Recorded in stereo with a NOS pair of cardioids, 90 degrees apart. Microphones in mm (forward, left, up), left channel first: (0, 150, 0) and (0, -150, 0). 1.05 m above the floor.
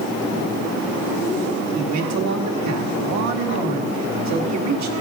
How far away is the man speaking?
About 1.9 m.